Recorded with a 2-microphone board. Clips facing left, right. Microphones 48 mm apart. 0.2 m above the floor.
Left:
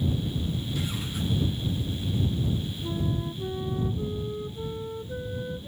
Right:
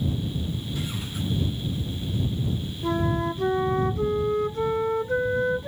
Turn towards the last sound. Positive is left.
turn(degrees=-65)  # may be behind; listen again after turning